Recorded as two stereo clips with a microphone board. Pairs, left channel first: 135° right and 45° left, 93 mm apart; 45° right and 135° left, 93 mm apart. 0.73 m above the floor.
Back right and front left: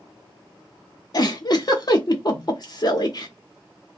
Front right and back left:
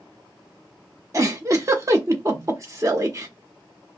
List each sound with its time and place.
1.1 s a giggle: 175° right, 0.7 m